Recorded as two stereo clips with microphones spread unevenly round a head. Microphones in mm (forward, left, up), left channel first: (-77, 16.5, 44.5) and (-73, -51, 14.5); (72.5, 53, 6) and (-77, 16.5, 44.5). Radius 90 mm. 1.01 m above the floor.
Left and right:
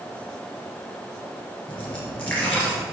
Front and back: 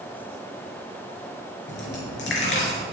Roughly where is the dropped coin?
Ahead.